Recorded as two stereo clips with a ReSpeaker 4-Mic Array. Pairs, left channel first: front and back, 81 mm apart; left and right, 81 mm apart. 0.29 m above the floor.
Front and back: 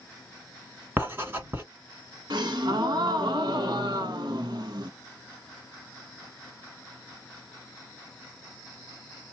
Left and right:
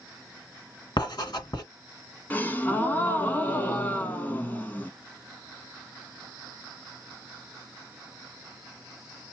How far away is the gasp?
About 0.7 m.